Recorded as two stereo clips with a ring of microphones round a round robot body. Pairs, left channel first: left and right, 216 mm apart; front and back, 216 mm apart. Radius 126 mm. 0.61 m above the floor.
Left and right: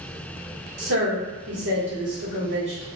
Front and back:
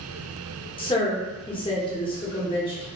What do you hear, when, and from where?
0.8 s a woman speaking: 65° right, 1.0 m